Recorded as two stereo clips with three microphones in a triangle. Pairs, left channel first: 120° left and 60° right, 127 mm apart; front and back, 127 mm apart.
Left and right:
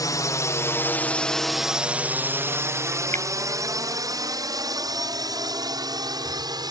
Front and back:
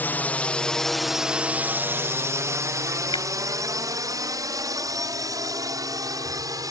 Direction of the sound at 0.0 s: 70° left.